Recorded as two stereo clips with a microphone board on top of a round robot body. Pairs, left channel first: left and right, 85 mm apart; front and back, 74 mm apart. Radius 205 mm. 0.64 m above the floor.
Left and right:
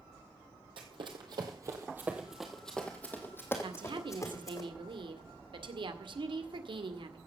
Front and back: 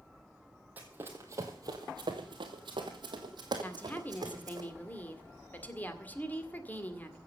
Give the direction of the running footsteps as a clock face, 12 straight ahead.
4 o'clock.